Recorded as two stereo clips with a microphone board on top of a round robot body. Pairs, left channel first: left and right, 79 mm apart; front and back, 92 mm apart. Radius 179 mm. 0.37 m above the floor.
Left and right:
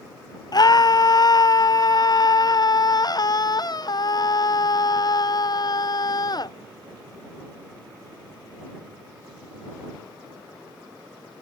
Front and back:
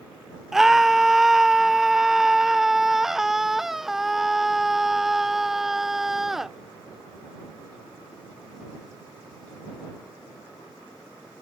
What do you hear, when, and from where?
0.5 s a scream: 95° left